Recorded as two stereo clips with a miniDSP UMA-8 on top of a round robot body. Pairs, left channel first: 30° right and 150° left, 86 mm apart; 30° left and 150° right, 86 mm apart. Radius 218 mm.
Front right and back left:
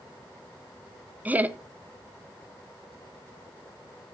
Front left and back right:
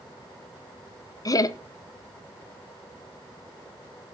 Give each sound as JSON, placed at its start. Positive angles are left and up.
{"t": 1.2, "sound": "laughter", "azimuth_deg": 80, "distance_m": 1.0}